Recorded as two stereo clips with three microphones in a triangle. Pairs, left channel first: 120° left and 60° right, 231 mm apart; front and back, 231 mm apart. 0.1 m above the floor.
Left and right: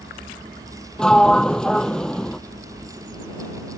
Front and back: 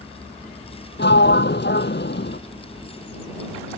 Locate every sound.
1.0 s a sliding door: 35° left